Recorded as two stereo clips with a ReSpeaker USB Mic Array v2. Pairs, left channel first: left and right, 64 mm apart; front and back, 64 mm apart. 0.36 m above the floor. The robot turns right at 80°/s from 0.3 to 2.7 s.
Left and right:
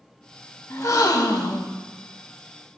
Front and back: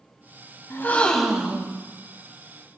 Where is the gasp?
45° left, 1.2 m; by 1.8 s 130° left, 1.2 m.